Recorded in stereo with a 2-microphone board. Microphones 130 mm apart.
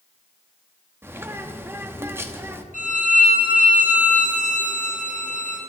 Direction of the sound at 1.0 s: 20° right (ahead or behind).